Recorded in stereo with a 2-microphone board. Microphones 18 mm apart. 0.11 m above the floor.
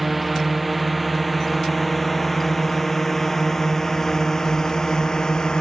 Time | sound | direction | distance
0.0 | a drone | centre (ahead or behind) | ?